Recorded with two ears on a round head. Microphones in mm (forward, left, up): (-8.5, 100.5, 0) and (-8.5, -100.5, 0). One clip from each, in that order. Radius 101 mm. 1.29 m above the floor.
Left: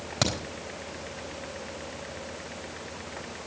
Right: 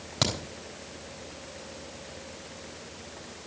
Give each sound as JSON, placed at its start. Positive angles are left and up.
{"t": 0.2, "sound": "a crack", "side_deg": 0, "distance_m": 3.5}